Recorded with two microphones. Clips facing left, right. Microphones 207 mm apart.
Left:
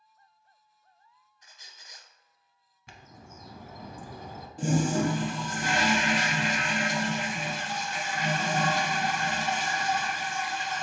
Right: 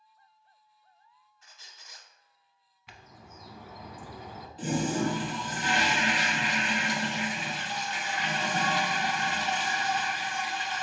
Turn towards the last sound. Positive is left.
turn(degrees=50)  # may be behind; listen again after turning